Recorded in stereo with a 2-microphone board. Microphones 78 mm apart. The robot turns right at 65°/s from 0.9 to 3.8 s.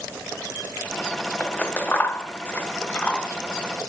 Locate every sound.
1.4 s scissors: 15° left (ahead or behind), 0.6 m; by 3.3 s 10° left (ahead or behind), 0.6 m